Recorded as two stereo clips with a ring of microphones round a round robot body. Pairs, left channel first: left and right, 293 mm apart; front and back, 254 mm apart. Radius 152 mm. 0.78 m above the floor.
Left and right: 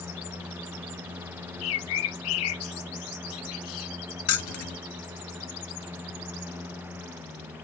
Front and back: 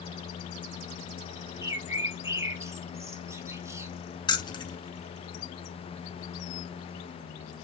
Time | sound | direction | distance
1.6 | a bird | 105° left | 0.6 m
4.3 | keys jangling | 70° left | 0.9 m